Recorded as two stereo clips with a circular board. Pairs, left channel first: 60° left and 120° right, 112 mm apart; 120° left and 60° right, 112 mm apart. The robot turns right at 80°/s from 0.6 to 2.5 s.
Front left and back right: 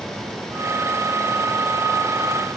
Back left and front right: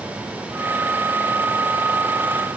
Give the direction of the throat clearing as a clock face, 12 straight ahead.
No throat clearing in this recording.